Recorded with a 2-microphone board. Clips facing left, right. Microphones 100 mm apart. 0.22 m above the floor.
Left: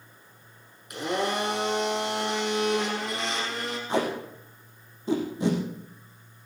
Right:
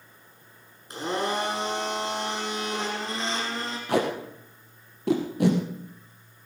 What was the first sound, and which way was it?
A blender, 30° right (ahead or behind).